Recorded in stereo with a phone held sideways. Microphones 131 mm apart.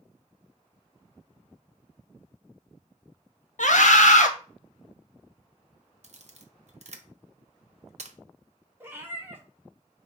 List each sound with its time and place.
3.6 s a scream: 70° left (ahead or behind), 1.0 m
6.0 s a camera shutter: 60° right (ahead or behind), 0.6 m
8.8 s a cat meowing: 15° right (ahead or behind), 0.9 m